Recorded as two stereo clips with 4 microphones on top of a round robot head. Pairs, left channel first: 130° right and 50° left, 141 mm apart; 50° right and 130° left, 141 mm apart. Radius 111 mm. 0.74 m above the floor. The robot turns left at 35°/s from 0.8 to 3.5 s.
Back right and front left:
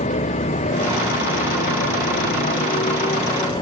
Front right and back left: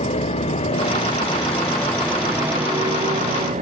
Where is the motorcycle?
95° right; by 3.6 s 170° left.